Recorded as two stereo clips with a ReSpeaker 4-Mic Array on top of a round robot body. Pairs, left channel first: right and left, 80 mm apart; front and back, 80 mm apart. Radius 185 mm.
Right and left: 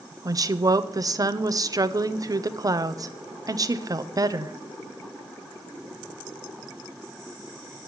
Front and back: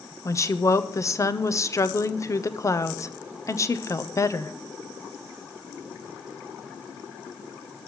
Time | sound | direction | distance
0.2 | a woman speaking | 50° left | 1.0 m